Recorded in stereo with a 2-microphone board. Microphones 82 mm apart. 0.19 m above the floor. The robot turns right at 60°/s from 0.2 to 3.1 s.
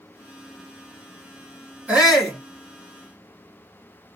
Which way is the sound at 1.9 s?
25° right.